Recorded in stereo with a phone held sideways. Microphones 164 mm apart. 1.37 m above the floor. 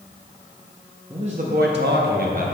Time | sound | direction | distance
1.1 | a man speaking | 30° right (ahead or behind) | 0.7 m